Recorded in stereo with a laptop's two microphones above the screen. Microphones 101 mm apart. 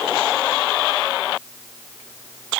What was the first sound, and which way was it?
Only background noise.